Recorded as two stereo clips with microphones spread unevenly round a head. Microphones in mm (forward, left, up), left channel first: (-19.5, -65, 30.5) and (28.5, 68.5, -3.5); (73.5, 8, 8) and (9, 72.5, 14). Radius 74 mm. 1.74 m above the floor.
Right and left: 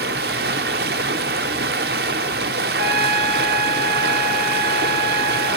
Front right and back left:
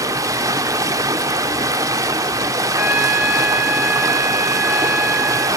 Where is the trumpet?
60° left, 3.5 m.